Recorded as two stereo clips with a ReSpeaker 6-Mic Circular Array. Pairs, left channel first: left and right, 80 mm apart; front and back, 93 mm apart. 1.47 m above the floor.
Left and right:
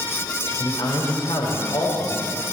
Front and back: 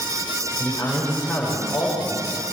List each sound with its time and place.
0.6 s a man speaking: 85° left, 7 m; by 2.3 s 90° left, 7 m